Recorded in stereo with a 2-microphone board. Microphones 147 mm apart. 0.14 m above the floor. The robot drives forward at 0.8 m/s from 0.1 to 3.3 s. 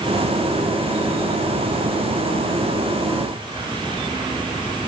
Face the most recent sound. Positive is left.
No sound to turn to.